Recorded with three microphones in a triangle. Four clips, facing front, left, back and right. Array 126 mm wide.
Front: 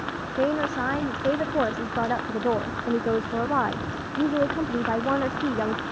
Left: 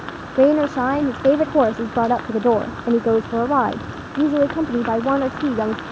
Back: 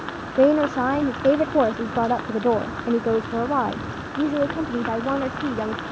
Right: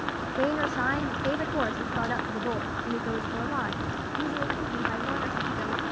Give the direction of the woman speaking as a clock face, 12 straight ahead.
8 o'clock.